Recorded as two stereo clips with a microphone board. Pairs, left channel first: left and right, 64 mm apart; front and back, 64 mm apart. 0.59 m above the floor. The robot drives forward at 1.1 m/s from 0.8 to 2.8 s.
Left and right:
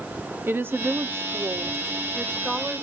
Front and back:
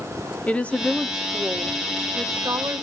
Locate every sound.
0.5 s a woman speaking: 60° right, 0.8 m; by 2.8 s 165° right, 2 m